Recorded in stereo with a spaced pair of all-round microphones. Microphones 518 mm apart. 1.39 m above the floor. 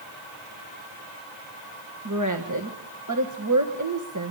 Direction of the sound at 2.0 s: 35° right (ahead or behind).